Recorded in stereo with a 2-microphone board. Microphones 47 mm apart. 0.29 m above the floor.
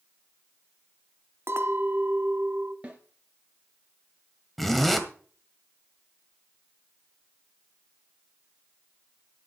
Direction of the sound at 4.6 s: 5° left (ahead or behind).